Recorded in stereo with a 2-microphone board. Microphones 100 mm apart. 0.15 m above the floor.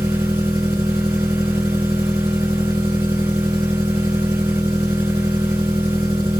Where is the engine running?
60° right (ahead or behind), 5 m.